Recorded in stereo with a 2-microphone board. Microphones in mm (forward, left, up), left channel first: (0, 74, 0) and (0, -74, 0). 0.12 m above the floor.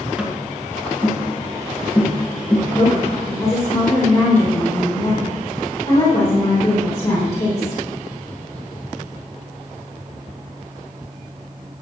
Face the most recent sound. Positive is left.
turn(degrees=20)  # may be behind; listen again after turning